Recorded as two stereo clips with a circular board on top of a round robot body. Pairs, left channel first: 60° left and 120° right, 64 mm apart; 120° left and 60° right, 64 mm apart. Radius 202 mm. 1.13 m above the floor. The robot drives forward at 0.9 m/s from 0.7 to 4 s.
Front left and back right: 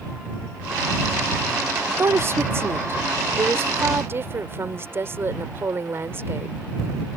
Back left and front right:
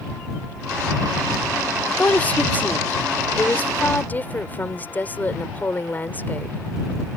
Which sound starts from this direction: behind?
A woman speaking, at 1.9 s.